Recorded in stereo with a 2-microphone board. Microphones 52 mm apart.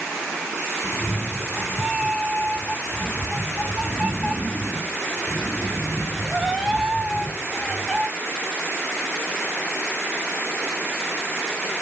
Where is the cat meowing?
Centre (ahead or behind), 2 m.